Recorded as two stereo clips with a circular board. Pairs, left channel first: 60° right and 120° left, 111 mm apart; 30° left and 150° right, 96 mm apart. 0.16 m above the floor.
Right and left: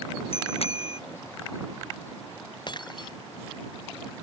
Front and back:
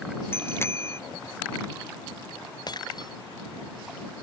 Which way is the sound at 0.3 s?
35° right.